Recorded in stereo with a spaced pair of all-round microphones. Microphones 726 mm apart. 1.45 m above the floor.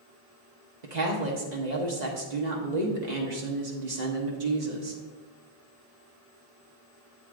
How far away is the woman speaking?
About 1.3 m.